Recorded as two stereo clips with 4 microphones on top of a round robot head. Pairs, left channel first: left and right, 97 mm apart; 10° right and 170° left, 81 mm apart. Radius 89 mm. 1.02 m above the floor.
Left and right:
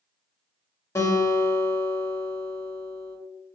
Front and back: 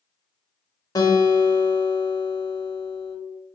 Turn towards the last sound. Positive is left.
turn(degrees=30)